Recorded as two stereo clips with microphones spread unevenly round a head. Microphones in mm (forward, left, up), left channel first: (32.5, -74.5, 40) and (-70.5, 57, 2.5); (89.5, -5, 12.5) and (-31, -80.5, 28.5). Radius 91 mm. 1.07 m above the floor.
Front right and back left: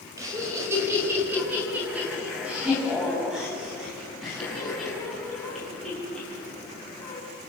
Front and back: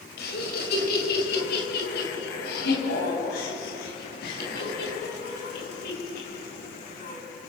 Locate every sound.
0.2 s laughter: 55° left, 5.5 m; by 7.2 s 35° left, 11.5 m